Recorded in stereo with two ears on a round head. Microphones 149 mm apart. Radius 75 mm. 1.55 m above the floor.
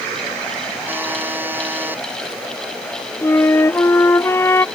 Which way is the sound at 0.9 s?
10° right (ahead or behind).